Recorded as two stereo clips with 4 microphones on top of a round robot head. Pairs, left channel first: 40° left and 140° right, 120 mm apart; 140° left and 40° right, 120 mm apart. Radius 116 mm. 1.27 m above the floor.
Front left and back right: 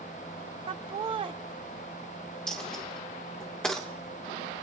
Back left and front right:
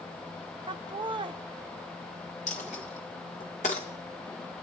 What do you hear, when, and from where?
0.7 s laughter: 90° right, 0.6 m
2.5 s a dropped coin: 125° left, 1.1 m